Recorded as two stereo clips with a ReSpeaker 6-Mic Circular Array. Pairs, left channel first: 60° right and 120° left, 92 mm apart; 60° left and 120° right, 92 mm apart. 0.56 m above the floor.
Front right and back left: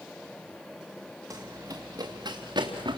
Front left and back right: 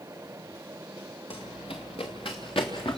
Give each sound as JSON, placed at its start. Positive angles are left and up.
{"t": 1.3, "sound": "running footsteps", "azimuth_deg": 65, "distance_m": 2.5}